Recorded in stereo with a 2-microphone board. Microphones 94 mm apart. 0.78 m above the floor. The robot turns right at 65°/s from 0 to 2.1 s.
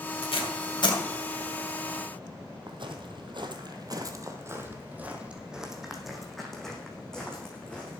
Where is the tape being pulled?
80° left, 2 m; by 1.0 s 50° left (ahead or behind), 2 m.